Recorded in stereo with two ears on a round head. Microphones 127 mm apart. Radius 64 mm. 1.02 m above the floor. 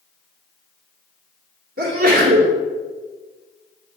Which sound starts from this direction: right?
A sneeze, at 1.8 s.